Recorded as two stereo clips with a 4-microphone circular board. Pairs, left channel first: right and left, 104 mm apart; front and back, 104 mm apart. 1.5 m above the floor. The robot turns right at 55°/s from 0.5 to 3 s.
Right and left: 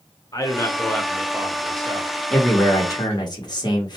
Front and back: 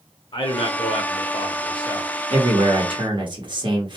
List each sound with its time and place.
0.3 s a man speaking: 35° right, 0.7 m; by 2.2 s 55° left, 0.7 m
2.3 s a man speaking: 175° right, 1.2 m; by 4.0 s 140° right, 1.2 m